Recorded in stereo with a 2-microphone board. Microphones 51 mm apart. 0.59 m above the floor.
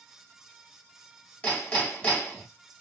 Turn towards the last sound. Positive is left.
turn(degrees=25)  # may be behind; listen again after turning